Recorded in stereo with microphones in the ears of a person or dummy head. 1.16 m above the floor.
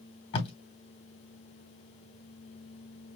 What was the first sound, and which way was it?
Tape being pulled, 30° left (ahead or behind).